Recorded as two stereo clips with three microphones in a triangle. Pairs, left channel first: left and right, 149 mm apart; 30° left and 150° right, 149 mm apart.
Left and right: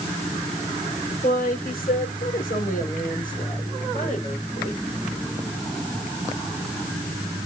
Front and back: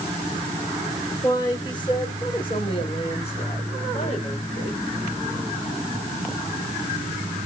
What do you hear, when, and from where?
1.2 s a woman speaking: 90° left, 6.5 m; by 4.8 s 60° left, 5.5 m